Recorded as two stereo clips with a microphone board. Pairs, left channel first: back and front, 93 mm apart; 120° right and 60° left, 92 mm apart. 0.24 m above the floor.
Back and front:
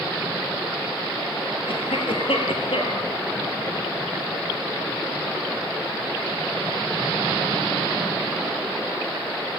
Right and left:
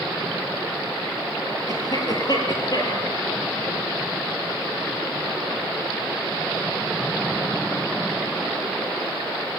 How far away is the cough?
About 4.5 m.